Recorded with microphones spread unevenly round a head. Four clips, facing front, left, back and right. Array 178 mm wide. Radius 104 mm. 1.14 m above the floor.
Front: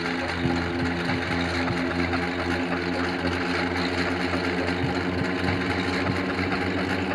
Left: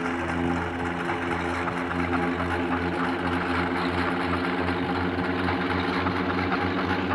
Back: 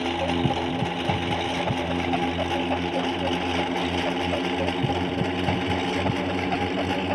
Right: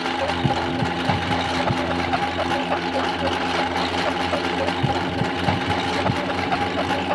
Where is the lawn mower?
110° right; by 7.2 s 105° right.